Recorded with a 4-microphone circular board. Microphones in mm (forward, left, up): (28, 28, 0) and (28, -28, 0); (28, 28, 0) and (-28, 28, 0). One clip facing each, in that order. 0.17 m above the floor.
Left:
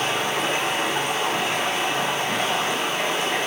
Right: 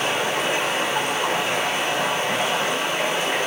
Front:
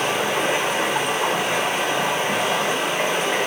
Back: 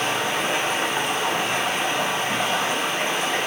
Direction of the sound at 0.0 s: 15° right.